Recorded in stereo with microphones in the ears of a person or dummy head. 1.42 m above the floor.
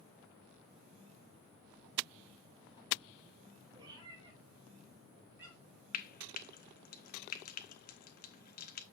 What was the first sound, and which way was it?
A cat meowing, 25° right (ahead or behind).